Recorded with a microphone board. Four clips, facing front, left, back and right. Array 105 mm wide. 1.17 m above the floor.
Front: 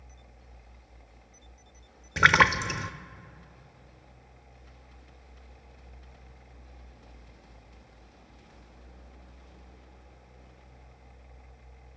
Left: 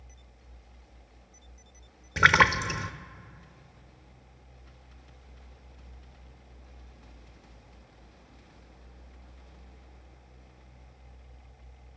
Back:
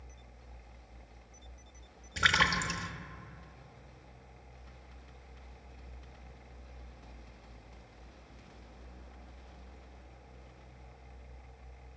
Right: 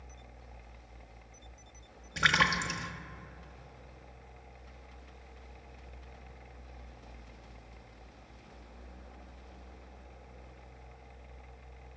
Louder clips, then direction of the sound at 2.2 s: Left 7 dB, front 8 dB; 35° left.